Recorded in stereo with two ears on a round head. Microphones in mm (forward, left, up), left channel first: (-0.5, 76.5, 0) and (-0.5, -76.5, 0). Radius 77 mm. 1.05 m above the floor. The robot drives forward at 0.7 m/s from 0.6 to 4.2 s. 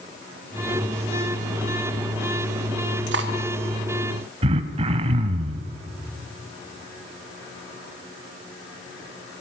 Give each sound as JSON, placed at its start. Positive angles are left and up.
{"t": 3.1, "sound": "cutlery clinking", "side_deg": -75, "distance_m": 1.7}
{"t": 4.4, "sound": "throat clearing", "side_deg": -35, "distance_m": 1.1}